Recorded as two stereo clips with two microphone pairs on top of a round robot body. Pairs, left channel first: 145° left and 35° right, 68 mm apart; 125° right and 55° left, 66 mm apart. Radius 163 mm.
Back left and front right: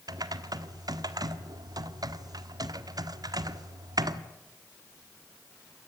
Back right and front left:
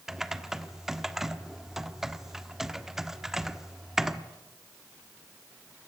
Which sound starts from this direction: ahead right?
Typing on a keyboard, at 0.1 s.